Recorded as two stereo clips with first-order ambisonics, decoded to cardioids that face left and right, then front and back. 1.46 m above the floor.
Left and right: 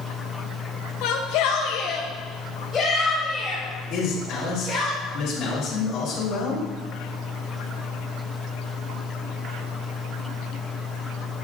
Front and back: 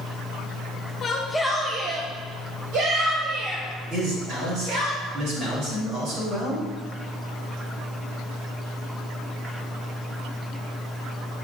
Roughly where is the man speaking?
Behind left.